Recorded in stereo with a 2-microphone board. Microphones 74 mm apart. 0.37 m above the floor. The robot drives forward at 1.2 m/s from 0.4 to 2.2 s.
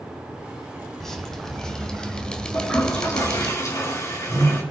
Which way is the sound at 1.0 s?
5° left (ahead or behind).